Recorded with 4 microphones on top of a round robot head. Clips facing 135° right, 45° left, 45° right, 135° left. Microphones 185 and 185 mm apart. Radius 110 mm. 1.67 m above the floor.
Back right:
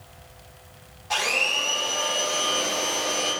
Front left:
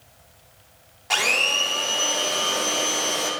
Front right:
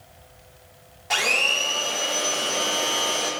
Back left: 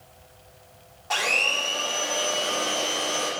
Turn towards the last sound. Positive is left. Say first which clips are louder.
# front left 1 dB, front right 1 dB
turn(degrees=25)